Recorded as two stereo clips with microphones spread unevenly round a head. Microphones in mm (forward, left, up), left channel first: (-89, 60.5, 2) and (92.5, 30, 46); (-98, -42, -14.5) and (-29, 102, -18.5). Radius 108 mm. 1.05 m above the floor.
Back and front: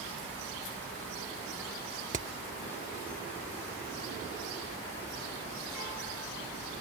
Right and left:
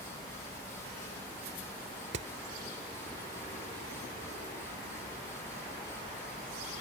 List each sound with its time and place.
2.1 s hammering: 40° left